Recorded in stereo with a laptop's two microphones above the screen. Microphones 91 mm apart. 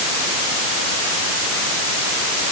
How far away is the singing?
I don't hear singing.